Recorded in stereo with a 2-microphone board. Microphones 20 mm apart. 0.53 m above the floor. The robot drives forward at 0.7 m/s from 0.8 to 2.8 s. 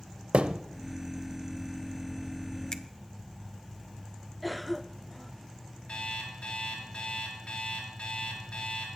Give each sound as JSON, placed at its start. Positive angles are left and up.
{"t": 0.3, "sound": "a thud", "side_deg": -70, "distance_m": 0.5}
{"t": 2.7, "sound": "a finger snap", "side_deg": 30, "distance_m": 0.8}
{"t": 4.4, "sound": "a cough", "side_deg": -5, "distance_m": 0.7}
{"t": 5.9, "sound": "an alarm clock", "side_deg": 65, "distance_m": 5.5}